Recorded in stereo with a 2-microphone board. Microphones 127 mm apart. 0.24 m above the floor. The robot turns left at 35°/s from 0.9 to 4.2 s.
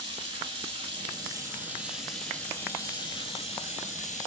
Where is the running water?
140° right, 7.5 m; by 4.3 s 105° left, 7.5 m.